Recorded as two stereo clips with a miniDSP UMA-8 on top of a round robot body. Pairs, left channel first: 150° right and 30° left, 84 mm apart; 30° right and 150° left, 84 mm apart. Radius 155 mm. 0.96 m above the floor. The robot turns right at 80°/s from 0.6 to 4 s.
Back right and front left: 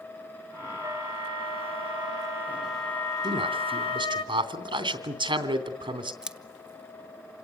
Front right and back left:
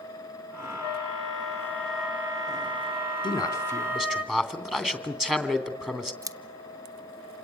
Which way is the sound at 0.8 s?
35° right.